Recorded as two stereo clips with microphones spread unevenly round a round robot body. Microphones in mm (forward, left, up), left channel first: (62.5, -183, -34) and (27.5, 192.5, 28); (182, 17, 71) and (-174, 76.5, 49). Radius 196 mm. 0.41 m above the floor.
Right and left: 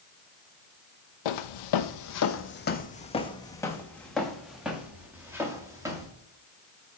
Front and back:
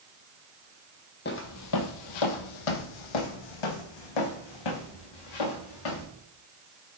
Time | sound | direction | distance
1.2 | footsteps | 70° right | 0.8 m